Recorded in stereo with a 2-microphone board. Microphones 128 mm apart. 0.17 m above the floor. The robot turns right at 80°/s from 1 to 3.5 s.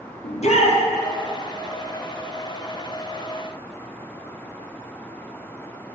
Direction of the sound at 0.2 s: 55° left (ahead or behind).